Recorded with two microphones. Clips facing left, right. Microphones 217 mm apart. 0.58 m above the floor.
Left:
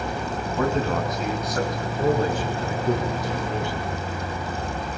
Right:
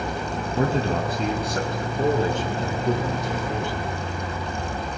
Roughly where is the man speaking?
Right.